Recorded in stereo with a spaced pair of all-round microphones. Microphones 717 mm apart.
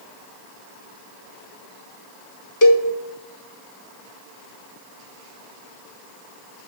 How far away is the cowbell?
About 1.3 m.